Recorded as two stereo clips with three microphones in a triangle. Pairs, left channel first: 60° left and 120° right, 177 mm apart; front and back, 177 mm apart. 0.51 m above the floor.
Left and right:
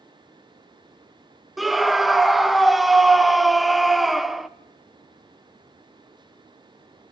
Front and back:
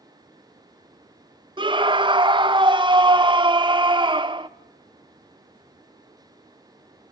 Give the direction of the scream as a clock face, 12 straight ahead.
7 o'clock.